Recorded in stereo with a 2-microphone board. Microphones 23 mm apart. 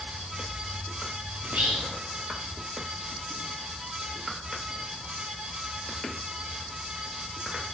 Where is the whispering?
70° right (ahead or behind), 2 m.